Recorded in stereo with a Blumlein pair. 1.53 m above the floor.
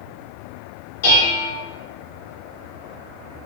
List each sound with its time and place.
1.0 s dishes clattering: 60° left, 1.8 m